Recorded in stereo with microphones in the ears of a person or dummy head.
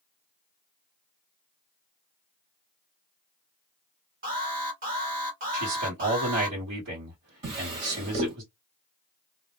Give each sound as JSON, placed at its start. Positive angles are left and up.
{"t": 4.2, "sound": "an alarm", "side_deg": -40, "distance_m": 1.4}
{"t": 5.5, "sound": "a man speaking", "side_deg": -80, "distance_m": 1.2}
{"t": 7.4, "sound": "a drawer", "side_deg": -35, "distance_m": 1.2}